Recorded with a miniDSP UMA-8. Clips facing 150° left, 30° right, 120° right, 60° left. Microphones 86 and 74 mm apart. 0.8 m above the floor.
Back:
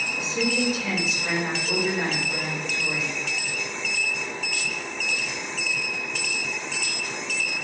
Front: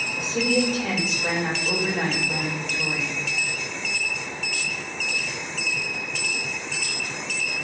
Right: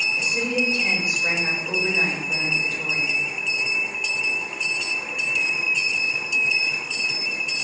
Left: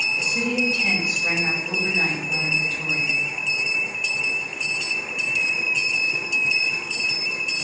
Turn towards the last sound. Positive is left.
turn(degrees=-55)